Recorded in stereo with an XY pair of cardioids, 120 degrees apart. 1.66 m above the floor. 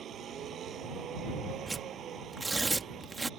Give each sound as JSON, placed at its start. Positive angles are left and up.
{"t": 0.0, "sound": "a vehicle", "azimuth_deg": -55}
{"t": 1.7, "sound": "tearing paper", "azimuth_deg": -20}